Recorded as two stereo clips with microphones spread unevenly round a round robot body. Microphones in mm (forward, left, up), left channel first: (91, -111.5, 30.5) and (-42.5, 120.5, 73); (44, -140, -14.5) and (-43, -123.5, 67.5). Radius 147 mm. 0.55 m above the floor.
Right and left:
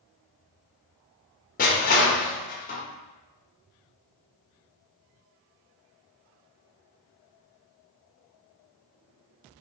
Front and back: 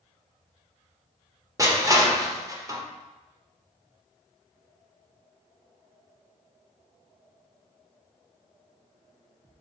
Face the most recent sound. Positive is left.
turn(degrees=-110)